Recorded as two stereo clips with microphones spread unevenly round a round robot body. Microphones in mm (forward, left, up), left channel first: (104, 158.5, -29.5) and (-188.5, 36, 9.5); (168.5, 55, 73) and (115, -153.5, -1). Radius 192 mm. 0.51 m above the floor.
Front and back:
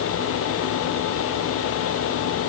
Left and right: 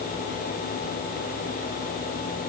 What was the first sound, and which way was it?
Only background noise.